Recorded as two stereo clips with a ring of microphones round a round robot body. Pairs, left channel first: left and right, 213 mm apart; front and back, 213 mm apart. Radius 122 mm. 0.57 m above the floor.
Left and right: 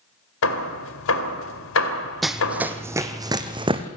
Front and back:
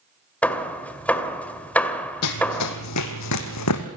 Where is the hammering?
85° left, 2 m.